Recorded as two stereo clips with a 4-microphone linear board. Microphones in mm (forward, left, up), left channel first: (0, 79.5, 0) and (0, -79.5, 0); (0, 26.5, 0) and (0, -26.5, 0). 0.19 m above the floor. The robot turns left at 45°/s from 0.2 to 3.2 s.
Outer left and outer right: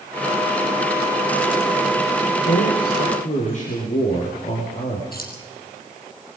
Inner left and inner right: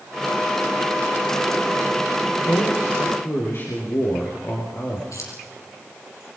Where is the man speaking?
85° left, 5.5 m; by 5.0 s 50° left, 5.5 m.